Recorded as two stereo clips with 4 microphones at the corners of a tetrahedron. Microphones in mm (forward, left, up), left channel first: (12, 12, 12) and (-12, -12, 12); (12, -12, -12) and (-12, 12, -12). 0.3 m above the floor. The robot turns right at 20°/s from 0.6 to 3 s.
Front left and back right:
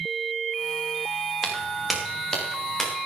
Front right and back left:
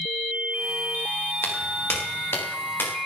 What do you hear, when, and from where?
1.4 s footsteps: 50° right, 5 m; by 2.9 s 35° right, 5.5 m